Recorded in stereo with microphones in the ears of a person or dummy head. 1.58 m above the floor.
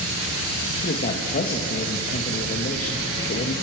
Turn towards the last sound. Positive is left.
turn(degrees=50)  # may be behind; listen again after turning